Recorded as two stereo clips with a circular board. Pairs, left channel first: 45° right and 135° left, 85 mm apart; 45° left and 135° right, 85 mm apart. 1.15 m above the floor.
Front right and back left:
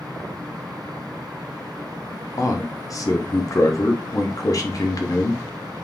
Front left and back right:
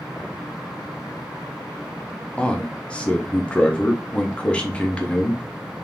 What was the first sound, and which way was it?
A man speaking, 25° right.